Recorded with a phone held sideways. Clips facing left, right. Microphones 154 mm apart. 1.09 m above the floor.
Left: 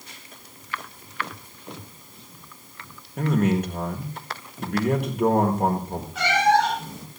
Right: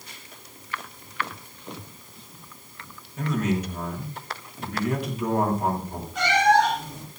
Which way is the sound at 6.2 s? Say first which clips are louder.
Even; 5° left (ahead or behind).